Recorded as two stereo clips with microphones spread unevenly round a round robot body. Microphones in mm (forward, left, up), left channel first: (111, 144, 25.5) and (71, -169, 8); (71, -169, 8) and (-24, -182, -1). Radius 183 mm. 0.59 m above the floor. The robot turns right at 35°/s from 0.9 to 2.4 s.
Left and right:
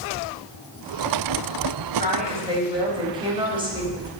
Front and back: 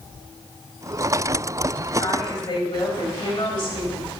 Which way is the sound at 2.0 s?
35° right.